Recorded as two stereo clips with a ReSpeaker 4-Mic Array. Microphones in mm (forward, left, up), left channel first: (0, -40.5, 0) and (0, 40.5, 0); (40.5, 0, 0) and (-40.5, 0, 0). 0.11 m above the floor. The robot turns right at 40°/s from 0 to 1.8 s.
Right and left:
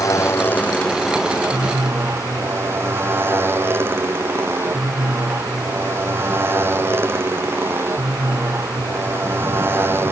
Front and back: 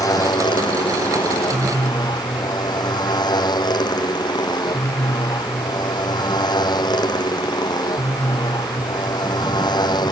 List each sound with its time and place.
0.0 s a motorcycle: 40° right; by 10.1 s 30° left